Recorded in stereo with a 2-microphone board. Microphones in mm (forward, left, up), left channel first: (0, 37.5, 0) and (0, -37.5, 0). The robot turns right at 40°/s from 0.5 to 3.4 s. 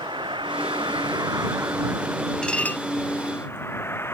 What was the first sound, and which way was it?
A vehicle, 90° right.